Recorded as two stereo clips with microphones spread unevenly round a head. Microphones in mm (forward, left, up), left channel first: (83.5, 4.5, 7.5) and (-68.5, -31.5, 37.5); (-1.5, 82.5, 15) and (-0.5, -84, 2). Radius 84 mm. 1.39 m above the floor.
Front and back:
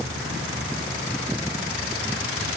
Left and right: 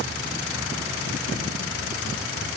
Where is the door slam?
I don't hear a door slam.